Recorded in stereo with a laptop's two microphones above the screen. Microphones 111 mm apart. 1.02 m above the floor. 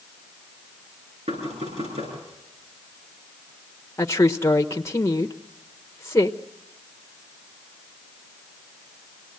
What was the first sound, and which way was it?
Knocking, 75° right (ahead or behind).